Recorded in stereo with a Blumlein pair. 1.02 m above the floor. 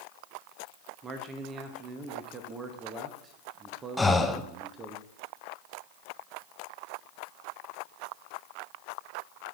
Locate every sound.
1.0 s a man speaking: 20° right, 1.0 m
4.0 s breathing: 5° left, 0.7 m